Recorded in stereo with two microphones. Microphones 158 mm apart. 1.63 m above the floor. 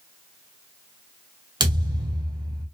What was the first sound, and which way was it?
A thud, 30° right (ahead or behind).